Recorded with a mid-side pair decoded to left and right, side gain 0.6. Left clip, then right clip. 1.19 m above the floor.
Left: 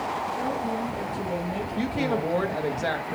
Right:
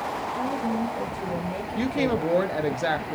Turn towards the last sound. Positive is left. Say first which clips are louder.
# right 2 dB
turn(degrees=-20)